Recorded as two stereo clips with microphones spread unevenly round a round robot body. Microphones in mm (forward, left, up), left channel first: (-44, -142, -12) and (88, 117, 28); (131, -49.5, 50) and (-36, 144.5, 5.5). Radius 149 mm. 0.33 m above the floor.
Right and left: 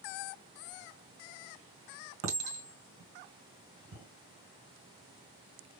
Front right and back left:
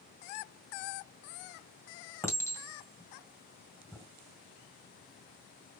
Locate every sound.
2.2 s a clink: 35° left, 2.0 m